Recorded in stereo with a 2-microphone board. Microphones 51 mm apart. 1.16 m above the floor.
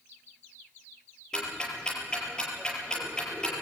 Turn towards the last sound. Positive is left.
turn(degrees=15)  # may be behind; listen again after turning